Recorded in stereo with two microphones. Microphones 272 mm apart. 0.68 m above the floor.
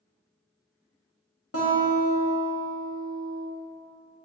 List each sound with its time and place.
1.5 s a guitar: 60° left (ahead or behind), 0.7 m